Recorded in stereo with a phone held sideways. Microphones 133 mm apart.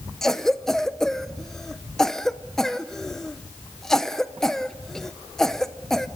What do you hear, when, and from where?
0.2 s a cough: 5° left (ahead or behind), 0.6 m